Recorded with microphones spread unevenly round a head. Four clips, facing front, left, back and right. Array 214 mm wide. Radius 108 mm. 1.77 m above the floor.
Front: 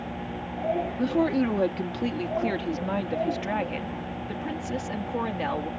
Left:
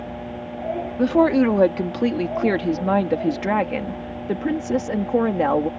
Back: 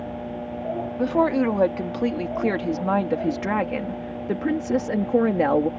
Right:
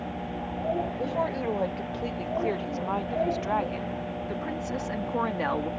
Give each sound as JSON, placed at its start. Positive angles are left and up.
{"t": 1.0, "sound": "a woman speaking", "azimuth_deg": 90}